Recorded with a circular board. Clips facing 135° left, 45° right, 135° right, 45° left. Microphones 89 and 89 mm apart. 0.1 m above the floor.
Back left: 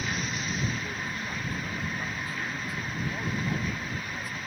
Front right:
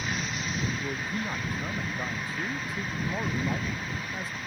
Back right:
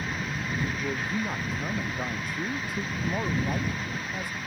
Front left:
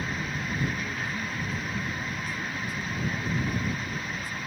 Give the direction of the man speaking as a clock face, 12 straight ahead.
4 o'clock.